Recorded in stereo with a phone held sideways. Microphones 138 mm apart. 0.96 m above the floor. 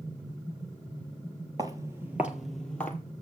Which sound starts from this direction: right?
Footsteps, at 1.6 s.